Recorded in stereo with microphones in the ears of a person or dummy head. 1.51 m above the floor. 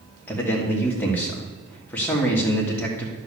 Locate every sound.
0.3 s a man speaking: 10° left (ahead or behind), 1.6 m